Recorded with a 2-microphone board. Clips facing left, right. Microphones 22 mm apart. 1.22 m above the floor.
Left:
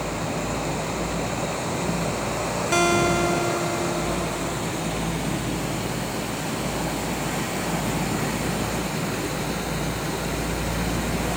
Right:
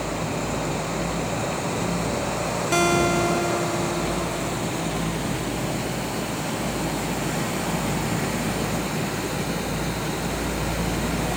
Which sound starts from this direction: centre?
A guitar, at 2.7 s.